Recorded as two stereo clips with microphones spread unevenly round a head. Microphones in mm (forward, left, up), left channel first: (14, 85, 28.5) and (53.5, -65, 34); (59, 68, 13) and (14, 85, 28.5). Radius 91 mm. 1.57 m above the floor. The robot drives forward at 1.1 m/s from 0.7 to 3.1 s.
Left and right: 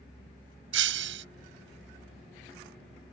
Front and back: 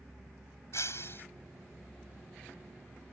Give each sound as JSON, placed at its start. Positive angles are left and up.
{"t": 0.7, "sound": "breaking glass", "azimuth_deg": -95}